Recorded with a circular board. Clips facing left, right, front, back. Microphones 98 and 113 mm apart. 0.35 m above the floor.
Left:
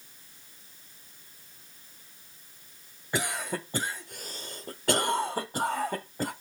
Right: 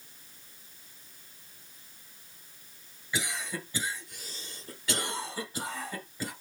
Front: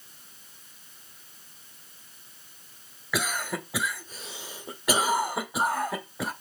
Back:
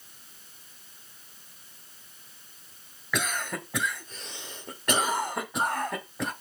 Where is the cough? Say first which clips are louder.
Left 4 dB, front 1 dB; 80° left, 1.5 m.